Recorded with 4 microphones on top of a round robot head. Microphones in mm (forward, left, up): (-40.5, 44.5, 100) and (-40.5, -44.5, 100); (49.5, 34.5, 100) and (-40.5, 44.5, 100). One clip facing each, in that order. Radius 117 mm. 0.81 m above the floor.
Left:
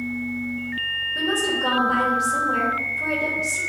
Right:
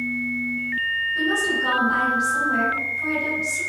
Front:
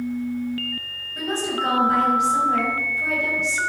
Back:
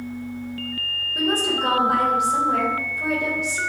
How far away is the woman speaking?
About 3 m.